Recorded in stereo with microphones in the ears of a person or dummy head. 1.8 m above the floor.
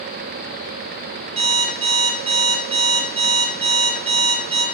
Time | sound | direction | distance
1.4 | an alarm clock | 40° right (ahead or behind) | 2.5 m